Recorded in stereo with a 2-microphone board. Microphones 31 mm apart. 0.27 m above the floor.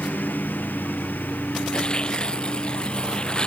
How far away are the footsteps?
I don't hear footsteps.